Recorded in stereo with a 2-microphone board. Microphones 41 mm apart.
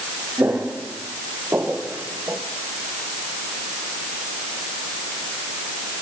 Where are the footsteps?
75° right (ahead or behind), 4 m.